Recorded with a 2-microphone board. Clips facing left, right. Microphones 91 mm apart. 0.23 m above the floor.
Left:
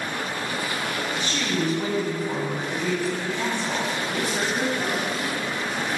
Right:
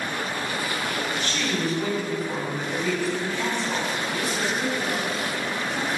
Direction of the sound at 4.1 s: 45° left (ahead or behind).